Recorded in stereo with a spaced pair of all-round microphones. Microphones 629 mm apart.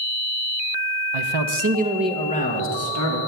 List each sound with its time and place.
1.1 s a man speaking: 55° right (ahead or behind), 0.6 m; by 3.2 s 30° left (ahead or behind), 1.3 m